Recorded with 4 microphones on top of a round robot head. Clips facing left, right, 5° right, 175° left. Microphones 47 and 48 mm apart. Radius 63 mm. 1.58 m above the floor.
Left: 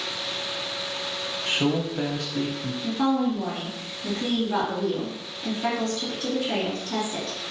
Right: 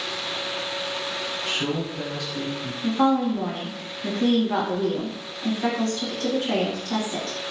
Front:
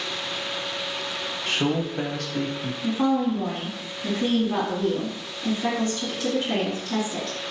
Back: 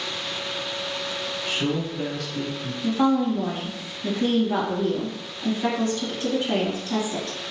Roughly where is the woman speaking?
Behind right.